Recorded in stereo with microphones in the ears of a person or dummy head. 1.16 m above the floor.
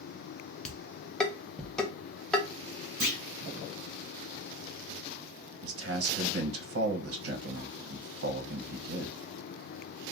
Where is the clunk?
55° right (ahead or behind), 1.7 m.